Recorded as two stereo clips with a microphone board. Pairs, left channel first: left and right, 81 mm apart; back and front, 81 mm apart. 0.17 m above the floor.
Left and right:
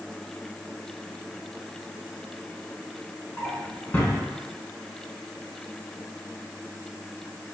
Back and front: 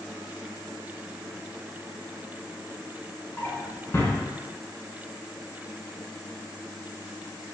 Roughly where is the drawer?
Behind left.